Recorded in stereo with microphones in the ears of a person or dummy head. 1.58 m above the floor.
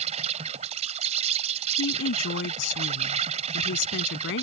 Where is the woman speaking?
90° left.